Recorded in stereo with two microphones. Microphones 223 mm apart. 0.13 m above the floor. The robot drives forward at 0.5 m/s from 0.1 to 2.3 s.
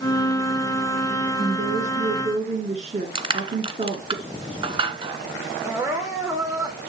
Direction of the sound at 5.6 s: 15° right (ahead or behind).